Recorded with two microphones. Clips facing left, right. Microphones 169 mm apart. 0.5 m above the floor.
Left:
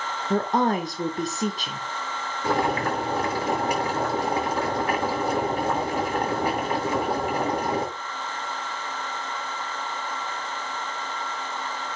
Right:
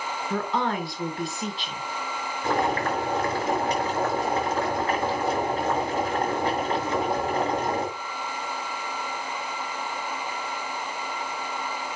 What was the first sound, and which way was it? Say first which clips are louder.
A woman speaking: left 5 dB; 40° left (ahead or behind).